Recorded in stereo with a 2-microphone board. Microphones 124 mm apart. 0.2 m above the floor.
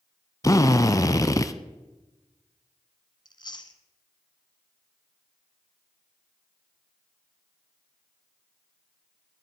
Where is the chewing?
40° left (ahead or behind), 0.9 m.